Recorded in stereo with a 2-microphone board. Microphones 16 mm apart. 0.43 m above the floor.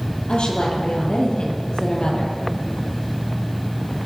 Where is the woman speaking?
80° left, 9 m.